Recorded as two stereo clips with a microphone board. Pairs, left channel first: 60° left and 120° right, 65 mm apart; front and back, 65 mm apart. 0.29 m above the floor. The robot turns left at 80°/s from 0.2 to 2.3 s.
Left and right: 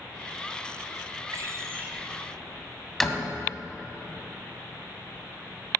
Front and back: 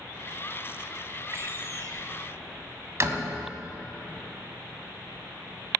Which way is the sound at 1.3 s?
140° right.